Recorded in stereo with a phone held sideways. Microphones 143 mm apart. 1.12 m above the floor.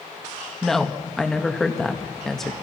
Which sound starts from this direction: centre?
A woman speaking, at 0.6 s.